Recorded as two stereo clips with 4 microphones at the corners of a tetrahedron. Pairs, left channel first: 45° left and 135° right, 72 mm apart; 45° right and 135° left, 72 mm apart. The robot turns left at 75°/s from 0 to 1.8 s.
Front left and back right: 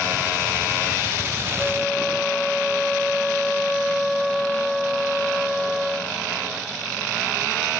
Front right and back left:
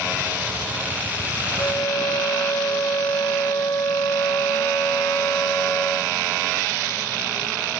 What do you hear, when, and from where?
1.6 s a flute: 25° right, 1.0 m; by 6.1 s 45° right, 1.0 m